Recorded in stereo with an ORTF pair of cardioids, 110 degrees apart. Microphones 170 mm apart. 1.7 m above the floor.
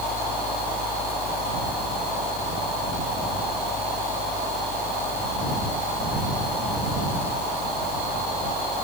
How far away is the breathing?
I don't hear breathing.